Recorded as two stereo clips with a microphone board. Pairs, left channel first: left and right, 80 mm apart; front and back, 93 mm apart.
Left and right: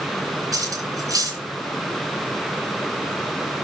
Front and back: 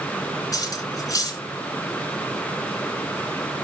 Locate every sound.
0.5 s cutlery clinking: 50° right, 2.5 m